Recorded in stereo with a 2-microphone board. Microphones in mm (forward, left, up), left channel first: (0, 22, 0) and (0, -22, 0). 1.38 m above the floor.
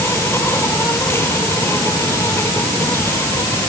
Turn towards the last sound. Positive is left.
turn(degrees=75)  # may be behind; listen again after turning